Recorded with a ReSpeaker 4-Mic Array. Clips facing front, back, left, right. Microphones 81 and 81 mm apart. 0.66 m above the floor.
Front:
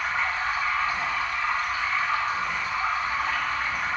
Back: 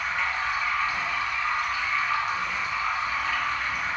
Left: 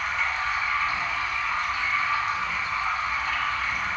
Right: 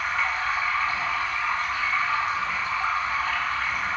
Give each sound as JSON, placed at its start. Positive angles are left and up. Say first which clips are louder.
{"t": 0.0, "sound": "running water", "louder": "front 1 dB, right 1 dB", "azimuth_deg": -50, "distance_m": 0.8}